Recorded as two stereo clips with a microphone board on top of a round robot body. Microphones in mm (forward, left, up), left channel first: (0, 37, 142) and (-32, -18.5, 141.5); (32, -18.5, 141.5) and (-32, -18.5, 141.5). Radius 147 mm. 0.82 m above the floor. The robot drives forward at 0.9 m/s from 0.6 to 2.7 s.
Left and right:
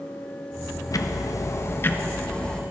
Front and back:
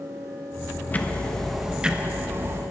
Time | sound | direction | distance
0.9 | ticking | 60° left | 1.3 m